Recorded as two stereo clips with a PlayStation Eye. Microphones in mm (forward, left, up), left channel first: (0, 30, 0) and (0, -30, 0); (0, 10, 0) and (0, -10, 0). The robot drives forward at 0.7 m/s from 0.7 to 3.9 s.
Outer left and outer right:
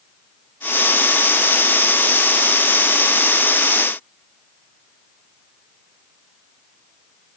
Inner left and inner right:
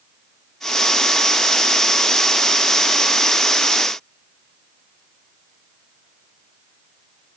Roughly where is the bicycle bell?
I don't hear a bicycle bell.